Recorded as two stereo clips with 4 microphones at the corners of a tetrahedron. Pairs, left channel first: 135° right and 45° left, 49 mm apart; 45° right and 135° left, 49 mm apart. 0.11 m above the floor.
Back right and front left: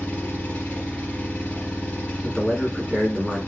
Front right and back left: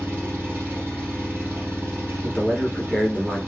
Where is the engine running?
170° left, 2.5 m.